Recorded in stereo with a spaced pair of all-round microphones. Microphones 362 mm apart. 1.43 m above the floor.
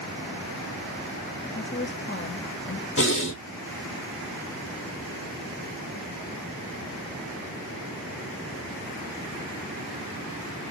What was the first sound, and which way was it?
A woman speaking, 30° left (ahead or behind).